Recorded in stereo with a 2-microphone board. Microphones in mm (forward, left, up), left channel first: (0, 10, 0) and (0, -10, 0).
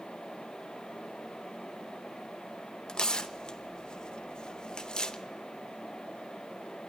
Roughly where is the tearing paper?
Left.